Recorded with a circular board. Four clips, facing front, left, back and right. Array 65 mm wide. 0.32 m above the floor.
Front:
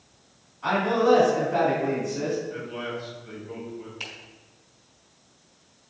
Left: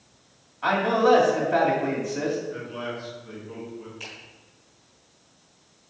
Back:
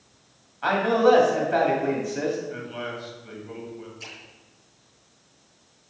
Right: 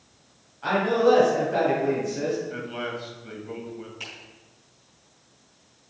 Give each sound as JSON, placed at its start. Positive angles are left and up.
{"t": 0.6, "sound": "a man speaking", "azimuth_deg": 150, "distance_m": 2.5}
{"t": 2.5, "sound": "a man speaking", "azimuth_deg": -115, "distance_m": 2.0}
{"t": 4.0, "sound": "a finger snap", "azimuth_deg": -15, "distance_m": 2.5}